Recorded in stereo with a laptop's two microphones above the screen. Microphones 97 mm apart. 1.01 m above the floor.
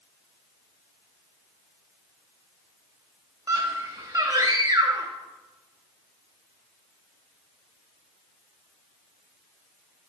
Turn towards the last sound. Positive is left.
turn(degrees=-35)  # may be behind; listen again after turning